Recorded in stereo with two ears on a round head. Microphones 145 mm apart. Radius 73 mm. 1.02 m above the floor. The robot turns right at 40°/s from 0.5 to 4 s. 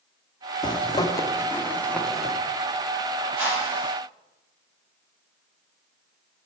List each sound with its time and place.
0.6 s a zipper: 30° left (ahead or behind), 0.5 m; by 2.4 s centre (ahead or behind), 0.5 m
3.4 s a whoosh: 10° right (ahead or behind), 2 m; by 3.9 s 35° right (ahead or behind), 2 m